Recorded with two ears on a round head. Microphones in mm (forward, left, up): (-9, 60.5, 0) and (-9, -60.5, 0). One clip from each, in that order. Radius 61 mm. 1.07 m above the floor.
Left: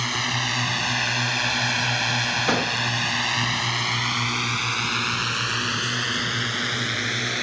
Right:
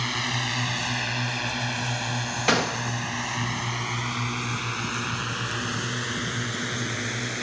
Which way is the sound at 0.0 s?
15° left (ahead or behind).